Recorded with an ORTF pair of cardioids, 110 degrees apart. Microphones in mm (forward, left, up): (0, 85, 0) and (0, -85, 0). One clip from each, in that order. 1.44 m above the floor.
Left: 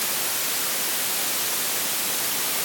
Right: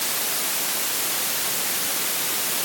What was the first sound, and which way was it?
Only background noise.